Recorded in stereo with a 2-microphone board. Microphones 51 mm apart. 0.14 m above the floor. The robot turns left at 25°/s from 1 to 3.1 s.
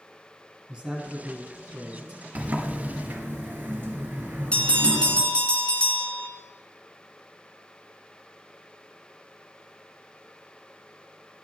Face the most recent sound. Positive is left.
turn(degrees=25)  # may be behind; listen again after turning